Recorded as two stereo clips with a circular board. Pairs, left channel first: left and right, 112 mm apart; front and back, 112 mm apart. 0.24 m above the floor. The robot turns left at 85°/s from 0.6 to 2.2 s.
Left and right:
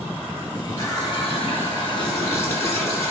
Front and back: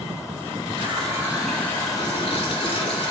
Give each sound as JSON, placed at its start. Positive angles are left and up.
{"t": 0.8, "sound": "a running tap", "azimuth_deg": 150, "distance_m": 1.9}